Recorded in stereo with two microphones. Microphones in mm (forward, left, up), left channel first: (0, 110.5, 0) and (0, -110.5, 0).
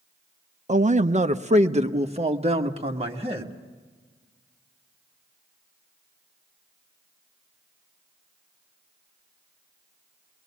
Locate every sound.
0.7 s a man speaking: 35° right (ahead or behind), 0.6 m; by 3.5 s 25° right (ahead or behind), 1.9 m